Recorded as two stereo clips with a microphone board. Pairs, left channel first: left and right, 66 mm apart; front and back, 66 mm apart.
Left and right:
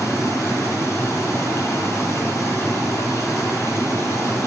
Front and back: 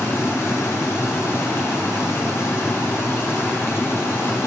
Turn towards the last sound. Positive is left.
turn(degrees=50)